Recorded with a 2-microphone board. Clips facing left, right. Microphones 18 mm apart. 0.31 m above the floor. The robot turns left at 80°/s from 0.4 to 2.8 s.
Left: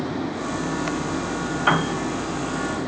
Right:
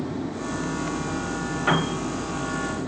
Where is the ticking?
I don't hear ticking.